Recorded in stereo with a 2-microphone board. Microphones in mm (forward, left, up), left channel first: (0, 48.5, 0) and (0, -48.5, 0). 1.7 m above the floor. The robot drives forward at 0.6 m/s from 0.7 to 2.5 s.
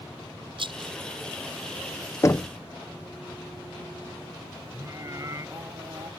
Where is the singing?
35° right (ahead or behind).